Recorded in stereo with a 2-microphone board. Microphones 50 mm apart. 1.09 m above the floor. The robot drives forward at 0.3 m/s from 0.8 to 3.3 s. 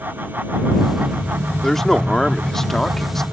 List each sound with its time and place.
1.6 s a man speaking: 5° left (ahead or behind)